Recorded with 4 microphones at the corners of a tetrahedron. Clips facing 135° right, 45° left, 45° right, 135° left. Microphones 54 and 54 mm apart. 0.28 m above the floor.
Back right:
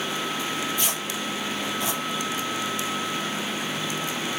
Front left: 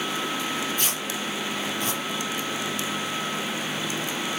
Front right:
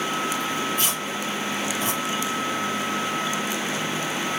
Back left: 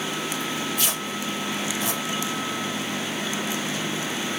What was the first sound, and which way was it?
Tearing paper, straight ahead.